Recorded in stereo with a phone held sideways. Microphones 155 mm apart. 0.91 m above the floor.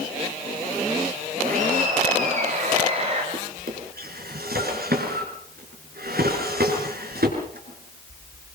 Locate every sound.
1.4 s laughter: 60° right (ahead or behind), 5 m; by 3.2 s 40° right (ahead or behind), 4.5 m
3.3 s a drawer: 85° right, 5.5 m